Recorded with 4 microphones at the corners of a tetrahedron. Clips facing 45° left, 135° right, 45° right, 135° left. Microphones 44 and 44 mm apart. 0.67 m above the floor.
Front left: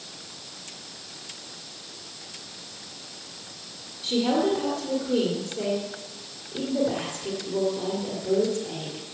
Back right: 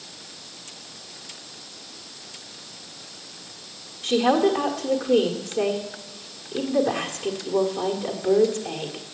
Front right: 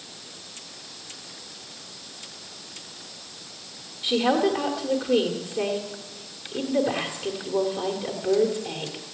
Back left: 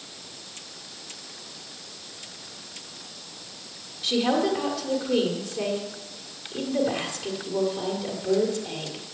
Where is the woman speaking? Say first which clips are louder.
Back right 4 dB, front right 2 dB; 115° right, 1.7 m.